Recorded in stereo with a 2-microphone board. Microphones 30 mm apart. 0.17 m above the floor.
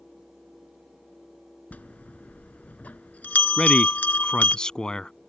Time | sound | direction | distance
1.7 | a bell | 60° left (ahead or behind) | ?
3.6 | a man speaking | 25° left (ahead or behind) | ?